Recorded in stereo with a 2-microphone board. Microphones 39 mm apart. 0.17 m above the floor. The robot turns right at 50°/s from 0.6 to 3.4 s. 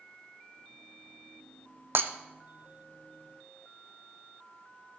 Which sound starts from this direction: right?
Breaking glass, at 1.9 s.